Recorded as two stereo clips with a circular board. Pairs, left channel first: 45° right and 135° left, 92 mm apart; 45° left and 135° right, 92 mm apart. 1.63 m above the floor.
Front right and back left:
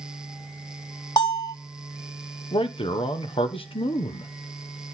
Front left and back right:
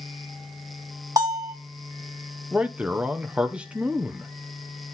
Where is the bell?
85° right, 1.8 m.